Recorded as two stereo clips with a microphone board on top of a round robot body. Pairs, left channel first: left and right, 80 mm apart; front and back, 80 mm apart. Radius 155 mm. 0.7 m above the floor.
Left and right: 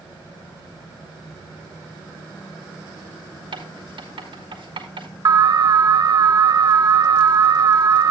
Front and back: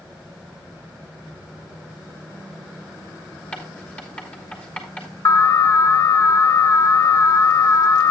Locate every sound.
3.5 s writing: 75° right, 3 m
5.2 s an alarm: 50° right, 1.0 m